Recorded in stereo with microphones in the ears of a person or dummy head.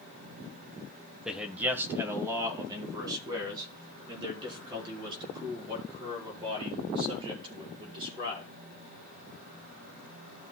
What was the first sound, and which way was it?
A man speaking, 5° right (ahead or behind).